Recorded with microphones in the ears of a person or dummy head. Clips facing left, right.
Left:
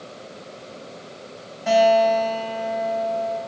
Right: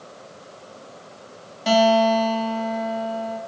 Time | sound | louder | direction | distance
1.7 | a guitar | left 1 dB | 50° right (ahead or behind) | 0.9 m